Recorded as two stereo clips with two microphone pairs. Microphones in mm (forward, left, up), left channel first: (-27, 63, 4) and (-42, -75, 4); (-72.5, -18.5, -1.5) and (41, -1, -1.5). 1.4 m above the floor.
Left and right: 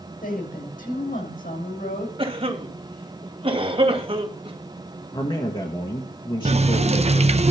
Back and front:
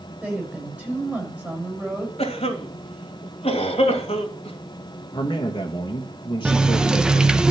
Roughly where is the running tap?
Right.